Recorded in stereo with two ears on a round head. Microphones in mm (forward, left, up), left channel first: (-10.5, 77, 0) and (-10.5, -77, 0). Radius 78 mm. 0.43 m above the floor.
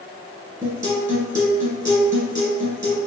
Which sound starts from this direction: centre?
A guitar, at 0.6 s.